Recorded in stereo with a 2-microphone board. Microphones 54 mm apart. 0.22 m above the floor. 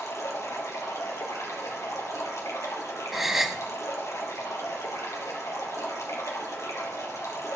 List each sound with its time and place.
0.0 s running water: 75° left (ahead or behind), 3.5 m
3.1 s a gasp: 5° right (ahead or behind), 1.0 m